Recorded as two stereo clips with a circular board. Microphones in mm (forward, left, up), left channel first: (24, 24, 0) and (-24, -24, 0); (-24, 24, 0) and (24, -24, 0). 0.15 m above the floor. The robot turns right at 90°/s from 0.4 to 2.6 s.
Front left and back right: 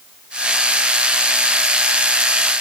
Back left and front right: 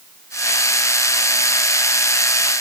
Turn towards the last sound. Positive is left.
No sound to turn to.